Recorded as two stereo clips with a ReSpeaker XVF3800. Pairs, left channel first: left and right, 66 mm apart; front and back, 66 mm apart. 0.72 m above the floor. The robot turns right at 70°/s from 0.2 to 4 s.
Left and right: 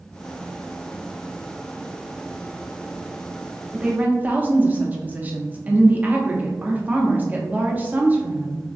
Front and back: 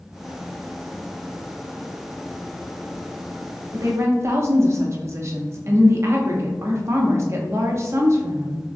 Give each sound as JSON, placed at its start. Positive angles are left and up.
{"t": 3.7, "sound": "a woman speaking", "azimuth_deg": -165, "distance_m": 0.9}